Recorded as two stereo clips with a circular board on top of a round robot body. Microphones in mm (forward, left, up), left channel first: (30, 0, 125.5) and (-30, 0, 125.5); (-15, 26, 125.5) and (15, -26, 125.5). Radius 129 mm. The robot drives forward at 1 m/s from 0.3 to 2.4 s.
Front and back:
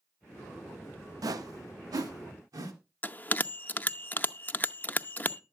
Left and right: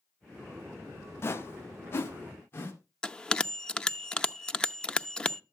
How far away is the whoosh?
About 0.9 m.